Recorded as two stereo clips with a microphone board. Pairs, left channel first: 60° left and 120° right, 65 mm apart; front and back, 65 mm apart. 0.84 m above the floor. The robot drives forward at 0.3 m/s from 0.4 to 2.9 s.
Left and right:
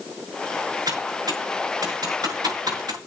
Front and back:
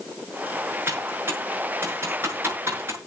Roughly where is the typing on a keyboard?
Behind right.